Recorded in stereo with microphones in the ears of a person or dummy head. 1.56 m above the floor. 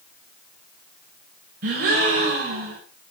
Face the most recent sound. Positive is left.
turn(degrees=-50)  # may be behind; listen again after turning